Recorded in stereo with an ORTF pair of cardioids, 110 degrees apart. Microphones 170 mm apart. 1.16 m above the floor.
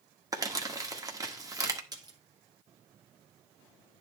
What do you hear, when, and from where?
0.3 s crumpling: 20° right, 1.4 m
1.9 s a splash: 25° right, 1.5 m